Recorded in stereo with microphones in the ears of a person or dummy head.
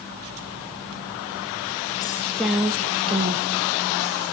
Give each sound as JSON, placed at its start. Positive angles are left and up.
{"t": 2.0, "sound": "a woman speaking", "side_deg": 20, "distance_m": 1.5}